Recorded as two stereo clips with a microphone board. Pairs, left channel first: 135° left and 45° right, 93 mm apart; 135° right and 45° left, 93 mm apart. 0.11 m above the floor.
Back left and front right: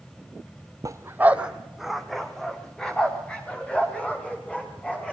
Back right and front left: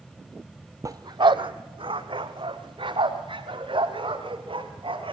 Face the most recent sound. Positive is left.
turn(degrees=60)